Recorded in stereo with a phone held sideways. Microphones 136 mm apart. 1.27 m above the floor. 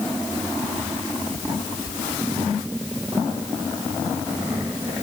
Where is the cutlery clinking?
I don't hear cutlery clinking.